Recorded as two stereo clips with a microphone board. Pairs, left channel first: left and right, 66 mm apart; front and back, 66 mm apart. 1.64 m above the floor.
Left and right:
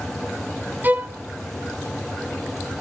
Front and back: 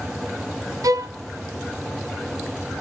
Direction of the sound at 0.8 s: 150° right.